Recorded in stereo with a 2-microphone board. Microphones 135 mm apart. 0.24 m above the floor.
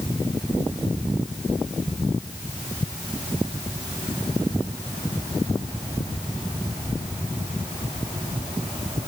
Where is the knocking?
No knocking in this recording.